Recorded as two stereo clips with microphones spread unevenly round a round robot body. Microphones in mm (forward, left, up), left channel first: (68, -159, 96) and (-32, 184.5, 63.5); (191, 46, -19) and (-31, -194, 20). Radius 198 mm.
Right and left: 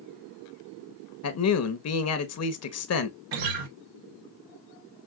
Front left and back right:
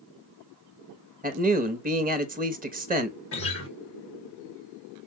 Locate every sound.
1.2 s a man speaking: 75° right, 1.1 m
3.3 s a guitar: 100° left, 1.1 m